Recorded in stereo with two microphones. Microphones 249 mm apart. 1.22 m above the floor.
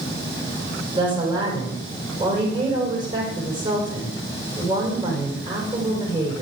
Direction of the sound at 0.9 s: 30° right (ahead or behind).